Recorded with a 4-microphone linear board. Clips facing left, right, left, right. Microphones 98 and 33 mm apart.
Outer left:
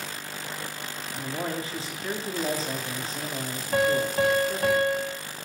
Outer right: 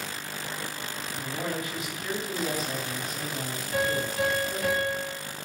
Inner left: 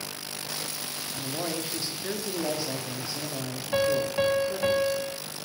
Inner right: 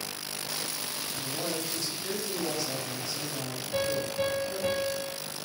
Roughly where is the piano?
Left.